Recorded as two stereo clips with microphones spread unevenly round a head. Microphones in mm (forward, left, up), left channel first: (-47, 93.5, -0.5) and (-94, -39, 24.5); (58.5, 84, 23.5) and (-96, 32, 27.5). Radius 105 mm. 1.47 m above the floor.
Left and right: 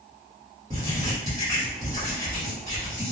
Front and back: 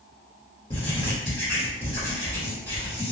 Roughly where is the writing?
Ahead right.